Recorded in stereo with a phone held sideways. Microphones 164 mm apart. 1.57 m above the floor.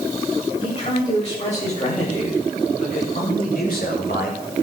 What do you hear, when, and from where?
0.6 s a man speaking: 40° left (ahead or behind), 8 m; by 4.6 s 80° left, 4.5 m